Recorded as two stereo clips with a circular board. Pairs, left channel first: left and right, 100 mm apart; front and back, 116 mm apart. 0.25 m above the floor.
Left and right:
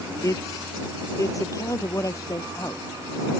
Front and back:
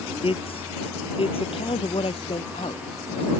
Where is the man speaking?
35° left.